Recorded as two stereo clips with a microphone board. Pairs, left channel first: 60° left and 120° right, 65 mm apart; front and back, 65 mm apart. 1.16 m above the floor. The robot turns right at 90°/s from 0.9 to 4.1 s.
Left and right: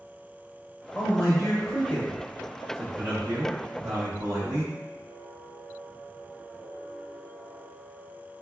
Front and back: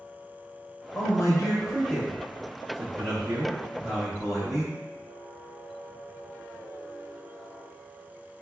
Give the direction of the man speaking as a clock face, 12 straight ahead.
1 o'clock.